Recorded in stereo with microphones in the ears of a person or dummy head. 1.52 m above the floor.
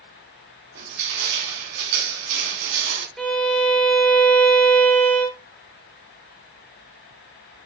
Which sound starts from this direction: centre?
A violin, at 3.2 s.